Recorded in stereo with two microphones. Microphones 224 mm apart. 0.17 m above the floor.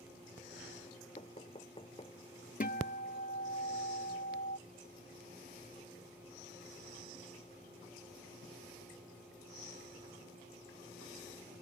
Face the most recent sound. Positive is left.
turn(degrees=40)  # may be behind; listen again after turning